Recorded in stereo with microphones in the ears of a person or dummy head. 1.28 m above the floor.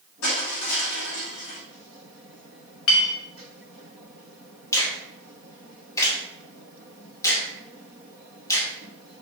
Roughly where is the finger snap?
Left.